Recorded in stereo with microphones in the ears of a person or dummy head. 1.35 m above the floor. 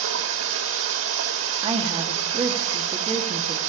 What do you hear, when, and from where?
0.0 s running water: 75° right (ahead or behind), 3 m
1.6 s a woman speaking: 30° right (ahead or behind), 1.9 m